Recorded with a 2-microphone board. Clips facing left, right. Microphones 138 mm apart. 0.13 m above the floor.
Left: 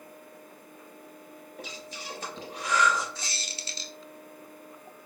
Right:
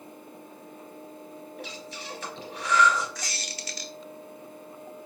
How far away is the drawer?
I don't hear a drawer.